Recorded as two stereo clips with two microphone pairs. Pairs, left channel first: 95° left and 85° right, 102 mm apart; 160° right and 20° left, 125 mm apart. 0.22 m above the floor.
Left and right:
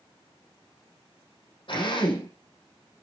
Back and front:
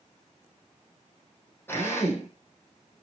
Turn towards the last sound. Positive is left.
turn(degrees=125)